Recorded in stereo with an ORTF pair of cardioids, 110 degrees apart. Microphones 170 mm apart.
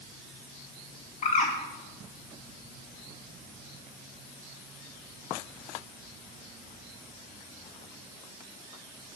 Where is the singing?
No singing in this recording.